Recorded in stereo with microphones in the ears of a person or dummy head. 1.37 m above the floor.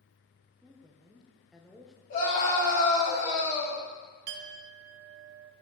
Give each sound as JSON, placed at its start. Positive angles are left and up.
{"t": 0.6, "sound": "a woman speaking", "side_deg": 0, "distance_m": 0.8}
{"t": 2.1, "sound": "a scream", "side_deg": 45, "distance_m": 3.5}
{"t": 4.3, "sound": "a clink", "side_deg": -55, "distance_m": 0.5}